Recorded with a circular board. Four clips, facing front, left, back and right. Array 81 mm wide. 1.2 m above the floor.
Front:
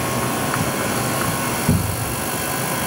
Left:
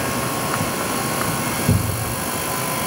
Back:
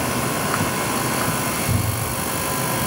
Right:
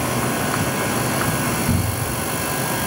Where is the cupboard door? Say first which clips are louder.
Even, front 3 dB; 55° left, 1.9 m.